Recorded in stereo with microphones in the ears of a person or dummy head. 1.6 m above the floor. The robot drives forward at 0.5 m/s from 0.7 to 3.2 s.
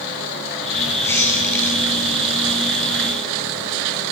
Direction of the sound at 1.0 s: 10° left (ahead or behind).